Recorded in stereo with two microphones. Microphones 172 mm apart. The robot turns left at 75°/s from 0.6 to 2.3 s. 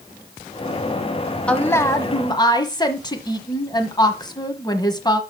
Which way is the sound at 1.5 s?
5° left (ahead or behind).